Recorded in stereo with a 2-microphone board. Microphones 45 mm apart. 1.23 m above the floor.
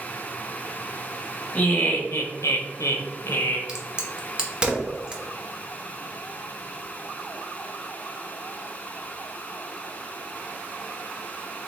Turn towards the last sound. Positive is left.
turn(degrees=-20)  # may be behind; listen again after turning